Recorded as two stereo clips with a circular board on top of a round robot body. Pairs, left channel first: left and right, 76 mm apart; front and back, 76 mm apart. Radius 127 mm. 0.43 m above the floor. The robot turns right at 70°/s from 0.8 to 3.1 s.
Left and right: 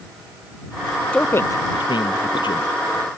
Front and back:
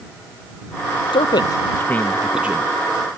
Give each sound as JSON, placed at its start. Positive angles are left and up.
{"t": 1.1, "sound": "a man speaking", "azimuth_deg": 15}